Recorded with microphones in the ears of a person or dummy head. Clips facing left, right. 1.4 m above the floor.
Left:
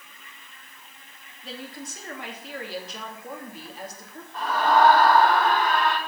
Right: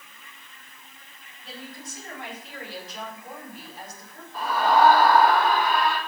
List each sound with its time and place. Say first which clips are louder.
1.4 s a woman speaking: left 3 dB; 65° left (ahead or behind), 3 m
4.3 s a scream: even; 5° right (ahead or behind), 4.5 m